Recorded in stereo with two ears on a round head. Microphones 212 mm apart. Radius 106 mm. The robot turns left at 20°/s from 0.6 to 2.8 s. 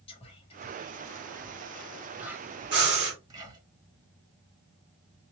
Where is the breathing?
50° right (ahead or behind), 2.5 m.